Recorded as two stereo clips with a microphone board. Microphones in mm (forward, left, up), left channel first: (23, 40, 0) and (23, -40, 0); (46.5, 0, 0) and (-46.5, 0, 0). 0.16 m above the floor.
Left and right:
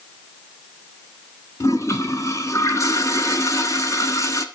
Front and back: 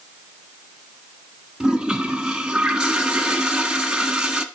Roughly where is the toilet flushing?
Left.